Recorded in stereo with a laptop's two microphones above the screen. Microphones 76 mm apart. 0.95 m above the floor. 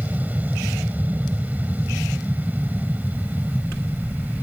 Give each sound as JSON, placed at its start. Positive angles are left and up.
{"t": 0.0, "sound": "an aircraft", "side_deg": -20}